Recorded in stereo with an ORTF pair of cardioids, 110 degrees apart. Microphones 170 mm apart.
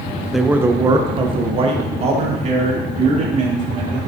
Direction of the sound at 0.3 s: Straight ahead.